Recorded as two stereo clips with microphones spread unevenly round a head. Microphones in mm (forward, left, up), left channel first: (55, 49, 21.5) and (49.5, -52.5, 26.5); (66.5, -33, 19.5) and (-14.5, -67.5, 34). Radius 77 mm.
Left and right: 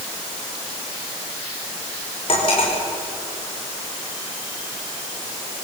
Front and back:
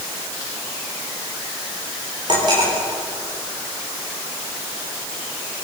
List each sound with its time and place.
2.3 s cutlery clinking: 145° left, 4.5 m